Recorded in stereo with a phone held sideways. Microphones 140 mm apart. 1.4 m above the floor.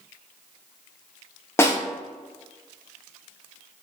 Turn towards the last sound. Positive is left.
turn(degrees=15)  # may be behind; listen again after turning